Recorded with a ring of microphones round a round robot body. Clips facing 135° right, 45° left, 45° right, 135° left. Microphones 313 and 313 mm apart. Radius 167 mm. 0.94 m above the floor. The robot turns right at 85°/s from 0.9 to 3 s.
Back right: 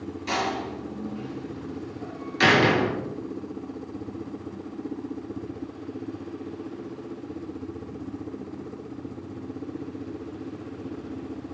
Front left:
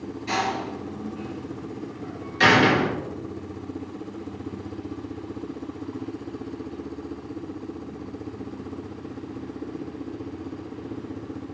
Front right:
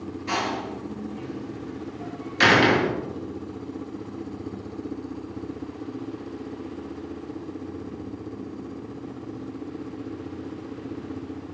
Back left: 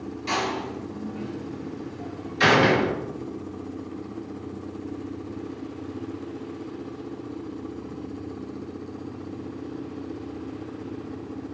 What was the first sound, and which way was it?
A door slam, 165° left.